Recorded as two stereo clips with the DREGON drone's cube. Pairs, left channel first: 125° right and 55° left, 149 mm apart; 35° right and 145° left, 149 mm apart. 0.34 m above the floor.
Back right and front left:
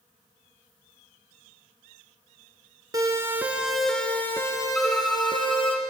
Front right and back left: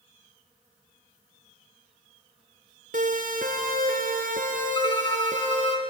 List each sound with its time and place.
2.9 s a siren: 120° left, 3 m; by 5.8 s 175° right, 4.5 m
4.8 s a violin: 40° right, 1.5 m